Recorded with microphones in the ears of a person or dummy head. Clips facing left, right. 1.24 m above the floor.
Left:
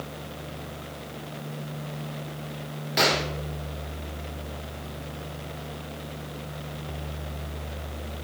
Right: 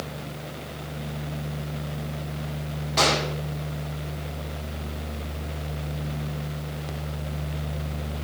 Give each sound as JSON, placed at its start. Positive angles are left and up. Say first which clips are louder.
{"t": 3.0, "sound": "a gunshot", "louder": "right 1 dB", "side_deg": 15, "distance_m": 1.6}